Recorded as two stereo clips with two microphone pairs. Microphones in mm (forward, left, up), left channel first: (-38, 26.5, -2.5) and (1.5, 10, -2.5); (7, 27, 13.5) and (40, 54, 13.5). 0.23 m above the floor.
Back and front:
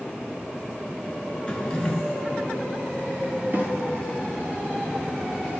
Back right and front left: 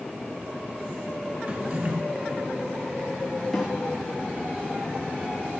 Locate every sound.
1.5 s a drawer: 85° left, 1.2 m
3.5 s a snare drum: 45° right, 2 m